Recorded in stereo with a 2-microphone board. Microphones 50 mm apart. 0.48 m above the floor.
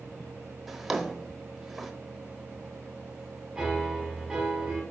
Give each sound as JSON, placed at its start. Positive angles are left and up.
{"t": 0.7, "sound": "a drawer", "side_deg": -5, "distance_m": 0.9}
{"t": 3.5, "sound": "a piano", "side_deg": -15, "distance_m": 5.0}